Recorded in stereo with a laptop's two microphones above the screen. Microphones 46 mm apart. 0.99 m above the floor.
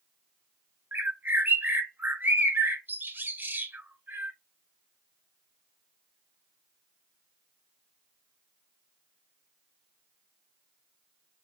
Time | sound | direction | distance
0.9 | a bird | 45° right (ahead or behind) | 0.6 m